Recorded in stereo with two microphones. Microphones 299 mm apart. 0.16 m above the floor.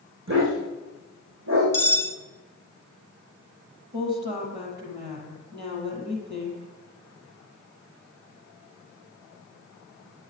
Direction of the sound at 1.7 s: 10° left (ahead or behind).